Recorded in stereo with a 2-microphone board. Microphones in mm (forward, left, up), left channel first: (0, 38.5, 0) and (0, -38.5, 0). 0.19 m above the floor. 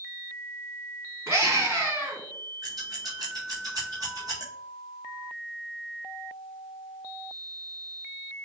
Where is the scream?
30° right (ahead or behind), 1.8 m.